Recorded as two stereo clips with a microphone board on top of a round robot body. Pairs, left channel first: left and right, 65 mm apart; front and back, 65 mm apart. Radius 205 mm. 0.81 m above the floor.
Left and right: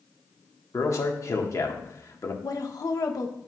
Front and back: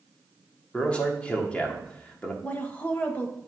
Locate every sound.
0.7 s a man speaking: 70° left, 1.5 m
2.4 s a woman speaking: 65° left, 1.1 m